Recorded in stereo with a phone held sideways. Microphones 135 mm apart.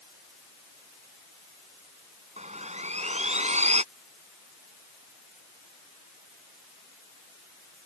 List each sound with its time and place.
2.4 s sawing: 55° right (ahead or behind)